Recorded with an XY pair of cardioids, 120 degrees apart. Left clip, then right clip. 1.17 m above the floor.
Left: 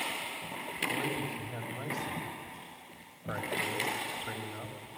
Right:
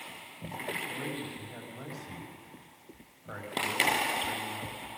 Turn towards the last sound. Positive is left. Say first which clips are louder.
# left 4 dB
turn(degrees=25)